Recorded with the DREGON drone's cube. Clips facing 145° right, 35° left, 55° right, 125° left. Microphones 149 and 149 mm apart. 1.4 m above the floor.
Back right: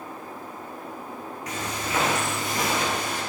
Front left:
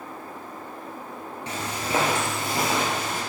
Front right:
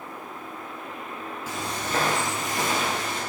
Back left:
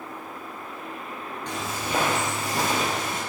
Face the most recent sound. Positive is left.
turn(degrees=95)